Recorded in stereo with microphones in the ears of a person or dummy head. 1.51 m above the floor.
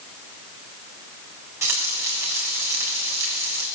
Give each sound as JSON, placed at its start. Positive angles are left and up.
{"t": 1.6, "sound": "frying", "side_deg": -20, "distance_m": 4.0}